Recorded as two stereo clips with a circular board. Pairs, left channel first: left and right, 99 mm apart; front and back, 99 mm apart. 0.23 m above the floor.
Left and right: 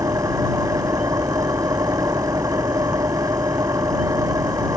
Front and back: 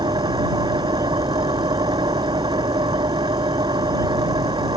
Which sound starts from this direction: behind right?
An engine running, at 0.0 s.